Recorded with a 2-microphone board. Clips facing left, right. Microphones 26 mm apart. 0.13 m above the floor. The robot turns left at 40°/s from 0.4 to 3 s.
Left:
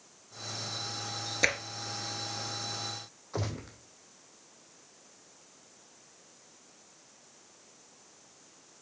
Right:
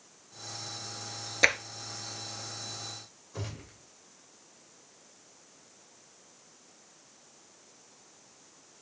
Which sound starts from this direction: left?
A gunshot, at 3.3 s.